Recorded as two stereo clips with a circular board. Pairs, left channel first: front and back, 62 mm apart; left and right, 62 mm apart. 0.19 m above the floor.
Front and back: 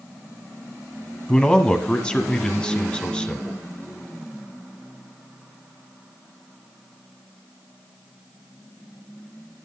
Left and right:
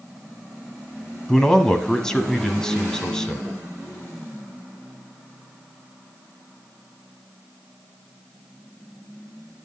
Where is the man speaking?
35° left, 1.3 m.